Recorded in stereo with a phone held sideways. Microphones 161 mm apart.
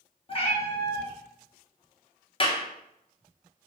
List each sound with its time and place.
0.3 s a cat meowing: 35° left (ahead or behind), 0.6 m
2.4 s a clap: 35° left (ahead or behind), 0.6 m